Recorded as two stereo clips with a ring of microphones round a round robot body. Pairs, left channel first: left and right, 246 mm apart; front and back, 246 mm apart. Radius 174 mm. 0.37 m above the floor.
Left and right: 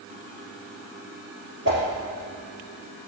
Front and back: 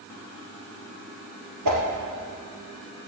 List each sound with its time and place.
1.6 s a whoosh: 150° right, 3 m